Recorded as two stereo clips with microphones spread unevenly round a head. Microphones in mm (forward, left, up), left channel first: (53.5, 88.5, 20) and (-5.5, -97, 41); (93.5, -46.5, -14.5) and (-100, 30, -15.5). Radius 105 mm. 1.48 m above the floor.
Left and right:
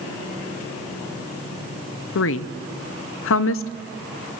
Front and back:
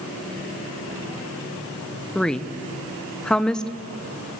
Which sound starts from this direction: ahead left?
A woman speaking, at 2.1 s.